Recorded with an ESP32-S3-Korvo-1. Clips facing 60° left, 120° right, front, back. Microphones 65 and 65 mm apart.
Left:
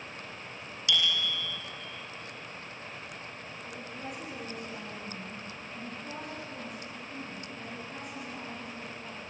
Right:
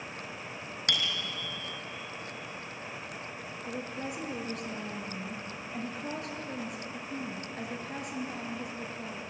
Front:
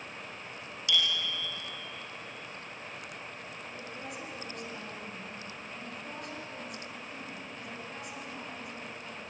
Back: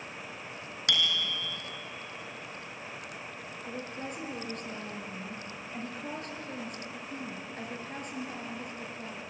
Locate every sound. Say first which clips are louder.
0.9 s a bicycle bell: left 4 dB, back 1 dB; 155° right, 2.5 m
3.6 s a woman speaking: right 5 dB, back 6 dB; 140° right, 4.5 m